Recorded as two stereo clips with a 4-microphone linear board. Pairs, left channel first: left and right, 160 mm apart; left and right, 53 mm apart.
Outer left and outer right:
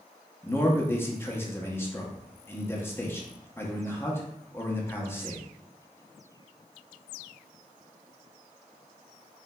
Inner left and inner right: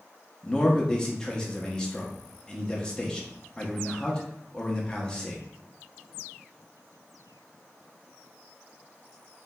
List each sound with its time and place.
0.4 s a man speaking: 15° left (ahead or behind), 0.5 m